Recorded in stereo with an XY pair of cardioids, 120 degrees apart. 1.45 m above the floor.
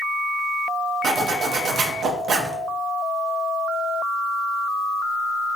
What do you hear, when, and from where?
1.0 s a zipper: 55° right, 0.6 m